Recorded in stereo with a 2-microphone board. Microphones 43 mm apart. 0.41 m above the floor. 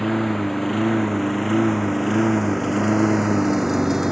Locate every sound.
0.0 s a lawn mower: centre (ahead or behind); by 4.1 s 10° right (ahead or behind)